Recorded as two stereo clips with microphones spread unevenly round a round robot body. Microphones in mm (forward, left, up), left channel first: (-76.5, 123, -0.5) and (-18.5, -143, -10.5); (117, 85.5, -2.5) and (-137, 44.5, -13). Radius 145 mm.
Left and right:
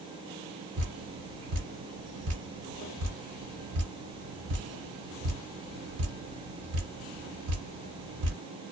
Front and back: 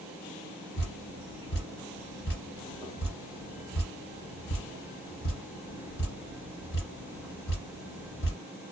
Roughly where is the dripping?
Ahead right.